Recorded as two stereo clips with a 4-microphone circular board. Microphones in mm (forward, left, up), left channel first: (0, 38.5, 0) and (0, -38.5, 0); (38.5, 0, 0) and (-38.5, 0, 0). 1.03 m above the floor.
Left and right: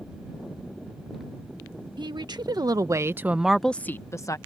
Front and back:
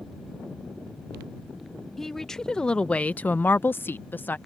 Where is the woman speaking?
85° right; by 4.4 s 60° left.